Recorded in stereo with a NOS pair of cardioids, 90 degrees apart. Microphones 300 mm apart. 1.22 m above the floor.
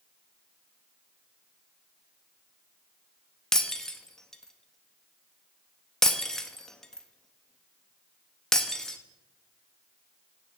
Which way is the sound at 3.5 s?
Straight ahead.